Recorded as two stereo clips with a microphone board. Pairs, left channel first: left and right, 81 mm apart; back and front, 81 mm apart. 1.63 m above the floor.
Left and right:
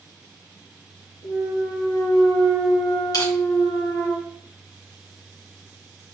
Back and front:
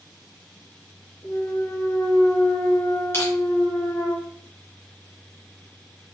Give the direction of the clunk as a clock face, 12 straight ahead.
7 o'clock.